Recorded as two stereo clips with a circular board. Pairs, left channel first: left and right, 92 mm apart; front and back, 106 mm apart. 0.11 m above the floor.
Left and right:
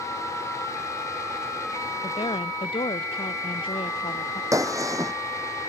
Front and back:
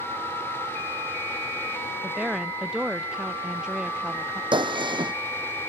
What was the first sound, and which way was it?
A woman speaking, 95° left.